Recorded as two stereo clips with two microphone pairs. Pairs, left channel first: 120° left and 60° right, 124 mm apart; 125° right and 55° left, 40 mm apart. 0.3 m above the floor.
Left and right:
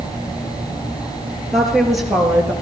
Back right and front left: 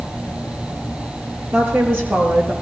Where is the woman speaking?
35° left, 4.5 m; by 2.5 s 20° left, 3.5 m.